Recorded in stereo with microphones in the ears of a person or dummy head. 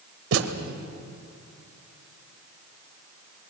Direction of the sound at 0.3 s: 70° right (ahead or behind).